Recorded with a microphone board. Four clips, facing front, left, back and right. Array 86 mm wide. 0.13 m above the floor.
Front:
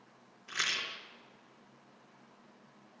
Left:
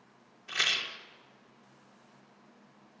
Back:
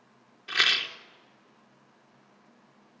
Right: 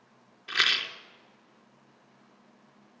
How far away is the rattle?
About 1.6 m.